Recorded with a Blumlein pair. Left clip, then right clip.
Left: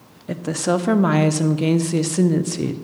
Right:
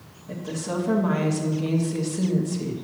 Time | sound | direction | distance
0.3 | a woman speaking | 55° left | 0.6 m